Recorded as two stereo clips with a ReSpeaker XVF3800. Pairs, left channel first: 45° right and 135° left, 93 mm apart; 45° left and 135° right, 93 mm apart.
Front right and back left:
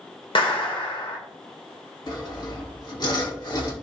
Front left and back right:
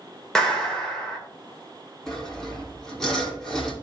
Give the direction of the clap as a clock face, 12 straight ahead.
1 o'clock.